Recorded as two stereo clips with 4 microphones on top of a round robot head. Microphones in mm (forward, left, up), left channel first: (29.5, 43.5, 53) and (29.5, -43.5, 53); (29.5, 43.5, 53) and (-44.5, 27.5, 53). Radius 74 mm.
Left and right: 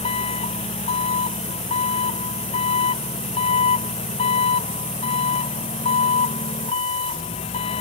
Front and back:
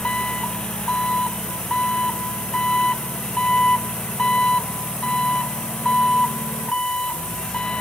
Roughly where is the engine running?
Left.